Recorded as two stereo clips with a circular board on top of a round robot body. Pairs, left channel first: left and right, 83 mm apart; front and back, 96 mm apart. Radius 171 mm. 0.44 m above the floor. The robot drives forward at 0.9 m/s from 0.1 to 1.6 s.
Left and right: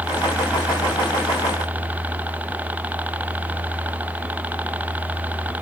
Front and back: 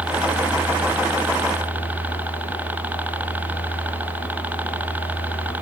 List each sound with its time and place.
0.0 s a helicopter: 125° right; by 5.6 s 130° right